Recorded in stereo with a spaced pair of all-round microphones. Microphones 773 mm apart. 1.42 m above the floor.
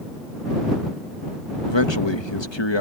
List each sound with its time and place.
1.7 s a man speaking: 35° left (ahead or behind)